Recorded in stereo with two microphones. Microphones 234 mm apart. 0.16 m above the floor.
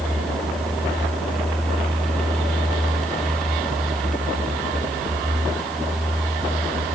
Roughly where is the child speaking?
I don't hear a child speaking.